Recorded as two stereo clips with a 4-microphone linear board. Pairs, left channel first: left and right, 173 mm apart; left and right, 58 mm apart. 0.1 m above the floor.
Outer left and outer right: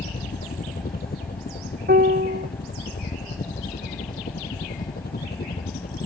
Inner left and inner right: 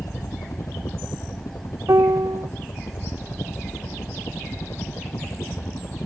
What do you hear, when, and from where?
0.0 s a helicopter: 65° left (ahead or behind)
1.9 s a piano: 70° right (ahead or behind)